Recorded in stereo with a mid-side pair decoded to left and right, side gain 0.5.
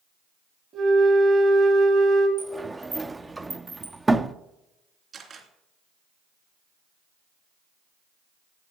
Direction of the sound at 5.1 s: 50° right.